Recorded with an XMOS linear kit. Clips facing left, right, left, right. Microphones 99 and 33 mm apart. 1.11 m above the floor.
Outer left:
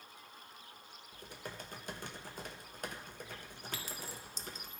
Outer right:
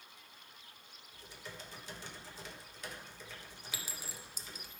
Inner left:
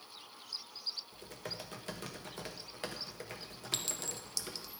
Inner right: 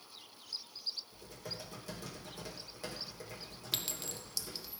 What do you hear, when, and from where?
1.1 s typing on a keyboard: 50° left (ahead or behind), 1.0 m
3.7 s a clink: 10° right (ahead or behind), 0.7 m